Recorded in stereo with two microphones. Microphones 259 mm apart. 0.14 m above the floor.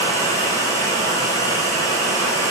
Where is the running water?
10° left (ahead or behind), 1.6 m.